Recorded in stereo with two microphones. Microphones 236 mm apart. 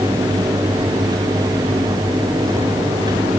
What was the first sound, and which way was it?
Only background noise.